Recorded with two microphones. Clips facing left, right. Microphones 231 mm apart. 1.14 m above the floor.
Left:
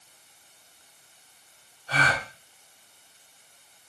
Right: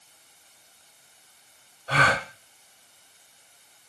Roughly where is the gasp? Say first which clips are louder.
Right 4 dB; right.